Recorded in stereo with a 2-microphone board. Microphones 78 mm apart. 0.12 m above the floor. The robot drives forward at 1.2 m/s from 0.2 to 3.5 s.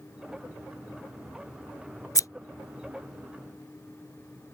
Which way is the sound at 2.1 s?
50° left (ahead or behind).